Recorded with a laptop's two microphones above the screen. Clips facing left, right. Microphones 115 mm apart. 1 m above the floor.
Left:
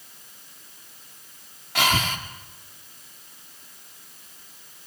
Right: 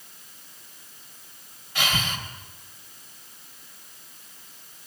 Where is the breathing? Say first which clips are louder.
Left 5 dB; 75° left (ahead or behind), 1.9 m.